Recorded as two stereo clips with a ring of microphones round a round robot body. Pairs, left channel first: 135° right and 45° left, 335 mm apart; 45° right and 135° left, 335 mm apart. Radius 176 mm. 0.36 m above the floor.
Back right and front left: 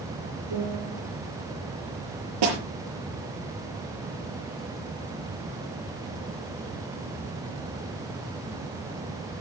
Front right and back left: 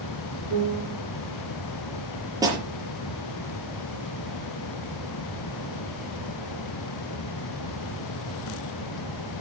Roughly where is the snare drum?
Ahead left.